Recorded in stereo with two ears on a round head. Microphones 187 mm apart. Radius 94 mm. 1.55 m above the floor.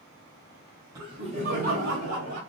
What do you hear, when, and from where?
0.9 s laughter: 20° right (ahead or behind), 1.3 m; by 2.4 s 60° right (ahead or behind), 1.5 m